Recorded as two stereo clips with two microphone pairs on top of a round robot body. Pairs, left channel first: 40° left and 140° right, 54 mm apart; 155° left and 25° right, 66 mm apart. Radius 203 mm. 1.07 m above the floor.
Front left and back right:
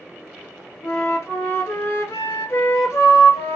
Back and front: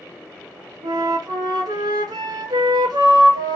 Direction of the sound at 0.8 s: 10° right.